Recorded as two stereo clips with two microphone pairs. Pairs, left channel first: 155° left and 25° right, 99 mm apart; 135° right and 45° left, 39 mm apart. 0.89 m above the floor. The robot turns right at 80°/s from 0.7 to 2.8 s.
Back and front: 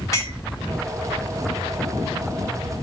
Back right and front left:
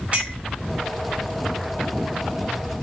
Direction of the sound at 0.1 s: 100° left.